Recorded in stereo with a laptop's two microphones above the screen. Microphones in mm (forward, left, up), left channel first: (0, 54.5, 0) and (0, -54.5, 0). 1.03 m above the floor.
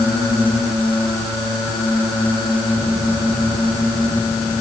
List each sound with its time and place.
Only background noise.